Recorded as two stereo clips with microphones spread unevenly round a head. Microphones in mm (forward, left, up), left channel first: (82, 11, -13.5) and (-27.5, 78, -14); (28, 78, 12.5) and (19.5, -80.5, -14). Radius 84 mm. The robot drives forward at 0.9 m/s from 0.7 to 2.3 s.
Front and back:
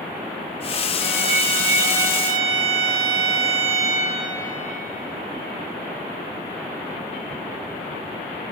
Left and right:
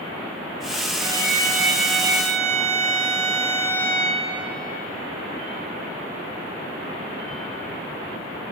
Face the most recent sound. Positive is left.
turn(degrees=-175)